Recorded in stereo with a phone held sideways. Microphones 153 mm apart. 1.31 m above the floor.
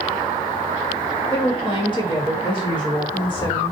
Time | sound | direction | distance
1.3 | a woman speaking | 30° left (ahead or behind) | 1.2 m